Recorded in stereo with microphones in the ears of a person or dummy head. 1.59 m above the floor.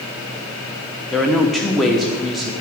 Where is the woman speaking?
5° left (ahead or behind), 1.0 m.